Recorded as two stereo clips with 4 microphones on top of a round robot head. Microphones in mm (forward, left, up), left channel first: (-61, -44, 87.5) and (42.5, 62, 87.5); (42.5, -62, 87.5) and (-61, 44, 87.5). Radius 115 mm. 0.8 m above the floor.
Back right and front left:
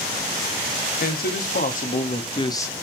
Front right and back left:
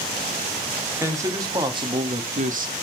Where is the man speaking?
155° right, 1.8 m; by 2.7 s 150° left, 0.9 m.